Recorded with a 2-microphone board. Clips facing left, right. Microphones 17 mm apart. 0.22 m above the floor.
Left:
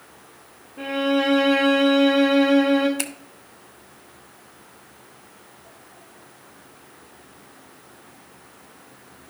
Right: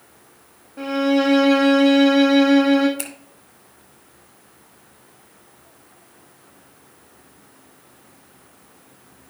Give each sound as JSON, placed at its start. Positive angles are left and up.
{"t": 0.8, "sound": "a violin", "side_deg": -60, "distance_m": 2.5}
{"t": 3.0, "sound": "a finger snap", "side_deg": 25, "distance_m": 1.4}